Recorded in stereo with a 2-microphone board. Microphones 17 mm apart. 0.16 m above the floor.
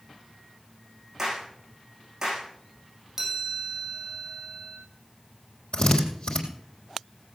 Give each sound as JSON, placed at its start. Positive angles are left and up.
{"t": 1.2, "sound": "a clap", "side_deg": -25, "distance_m": 8.0}
{"t": 3.2, "sound": "a chime", "side_deg": -25, "distance_m": 5.0}
{"t": 5.7, "sound": "a drill", "side_deg": 65, "distance_m": 3.5}